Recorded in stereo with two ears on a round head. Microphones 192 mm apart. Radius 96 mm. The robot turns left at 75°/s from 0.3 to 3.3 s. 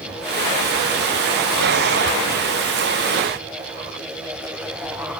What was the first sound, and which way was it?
Only background noise.